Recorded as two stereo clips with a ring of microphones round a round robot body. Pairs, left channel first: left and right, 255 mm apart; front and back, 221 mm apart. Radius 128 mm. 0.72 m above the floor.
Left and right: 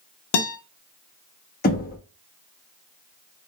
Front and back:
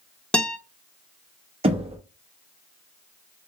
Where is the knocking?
130° left, 0.9 m.